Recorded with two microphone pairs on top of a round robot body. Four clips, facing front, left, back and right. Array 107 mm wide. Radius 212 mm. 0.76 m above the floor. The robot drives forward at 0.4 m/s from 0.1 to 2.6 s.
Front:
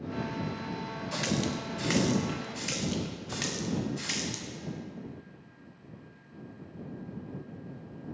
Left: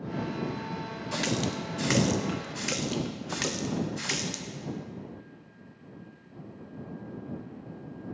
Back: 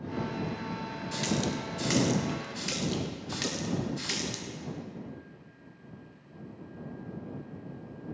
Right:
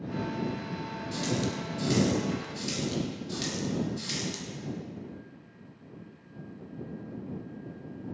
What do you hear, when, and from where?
1.1 s a running tap: 60° left, 1.2 m; by 4.5 s 95° left, 1.1 m